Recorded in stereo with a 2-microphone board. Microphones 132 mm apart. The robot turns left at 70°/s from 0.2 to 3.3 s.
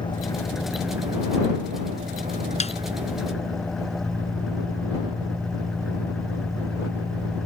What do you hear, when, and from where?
0.0 s an engine running: 35° left; by 7.5 s straight behind
2.6 s a snare drum: 55° left (ahead or behind); by 2.7 s 45° left (ahead or behind)